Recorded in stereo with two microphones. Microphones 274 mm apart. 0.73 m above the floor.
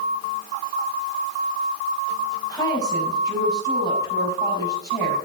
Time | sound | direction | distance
2.5 | a woman speaking | 15° left (ahead or behind) | 5.5 m